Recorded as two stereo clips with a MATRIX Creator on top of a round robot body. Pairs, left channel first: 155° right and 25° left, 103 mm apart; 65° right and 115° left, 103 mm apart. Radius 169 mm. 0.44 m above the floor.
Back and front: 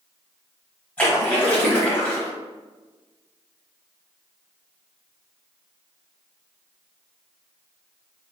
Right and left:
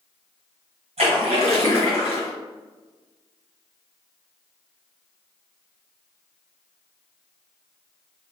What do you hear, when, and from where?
1.0 s a splash: 125° left, 1.4 m